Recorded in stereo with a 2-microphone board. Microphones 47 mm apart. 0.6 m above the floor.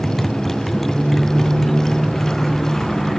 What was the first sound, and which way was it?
A motorcycle, 5° left (ahead or behind).